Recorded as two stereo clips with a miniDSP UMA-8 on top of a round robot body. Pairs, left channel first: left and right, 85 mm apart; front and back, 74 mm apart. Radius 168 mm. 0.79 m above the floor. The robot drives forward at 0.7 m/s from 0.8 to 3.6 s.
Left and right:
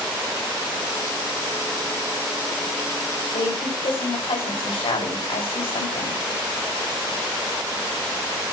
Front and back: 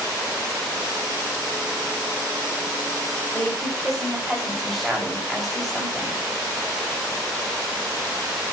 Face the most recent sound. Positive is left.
turn(degrees=90)